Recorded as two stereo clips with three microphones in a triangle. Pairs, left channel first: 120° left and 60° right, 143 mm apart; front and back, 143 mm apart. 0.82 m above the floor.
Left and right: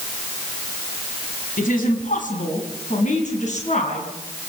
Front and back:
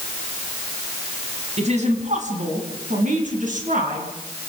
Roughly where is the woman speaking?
Behind left.